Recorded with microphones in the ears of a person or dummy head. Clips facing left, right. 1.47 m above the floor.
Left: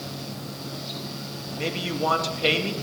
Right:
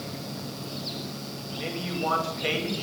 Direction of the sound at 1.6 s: 70° left (ahead or behind).